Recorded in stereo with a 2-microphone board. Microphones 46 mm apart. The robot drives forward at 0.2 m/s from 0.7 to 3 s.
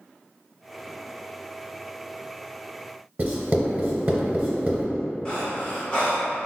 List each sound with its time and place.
3.2 s writing: 45° right (ahead or behind), 0.8 m
5.2 s breathing: 20° left (ahead or behind), 1.1 m